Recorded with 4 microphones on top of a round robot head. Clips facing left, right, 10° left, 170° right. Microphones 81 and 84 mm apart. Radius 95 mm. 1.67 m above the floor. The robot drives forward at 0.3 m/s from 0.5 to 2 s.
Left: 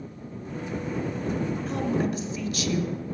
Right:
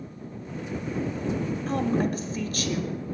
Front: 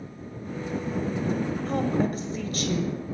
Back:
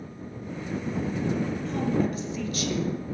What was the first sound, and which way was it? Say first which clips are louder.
A woman speaking: right 3 dB, front 1 dB; 40° right.